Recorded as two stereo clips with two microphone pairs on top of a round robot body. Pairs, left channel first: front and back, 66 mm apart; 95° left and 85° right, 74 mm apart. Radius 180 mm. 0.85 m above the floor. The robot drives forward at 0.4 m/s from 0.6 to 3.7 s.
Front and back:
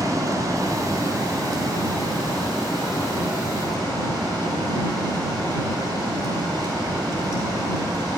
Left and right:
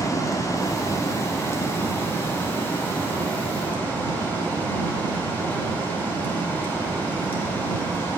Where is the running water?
140° left, 1.5 m; by 8.2 s 160° left, 2.5 m.